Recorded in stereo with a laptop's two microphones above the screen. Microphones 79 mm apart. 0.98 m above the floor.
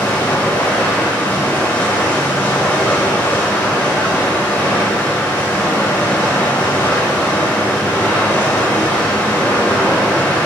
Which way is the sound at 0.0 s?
25° left (ahead or behind).